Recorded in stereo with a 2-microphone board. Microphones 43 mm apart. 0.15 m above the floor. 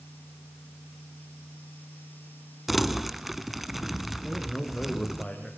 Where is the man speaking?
10° left (ahead or behind), 5.5 m.